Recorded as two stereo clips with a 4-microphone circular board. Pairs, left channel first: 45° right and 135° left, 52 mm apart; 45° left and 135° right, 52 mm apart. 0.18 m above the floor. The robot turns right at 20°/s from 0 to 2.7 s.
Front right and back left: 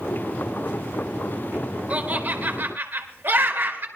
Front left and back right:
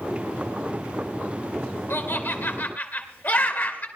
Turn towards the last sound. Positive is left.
turn(degrees=90)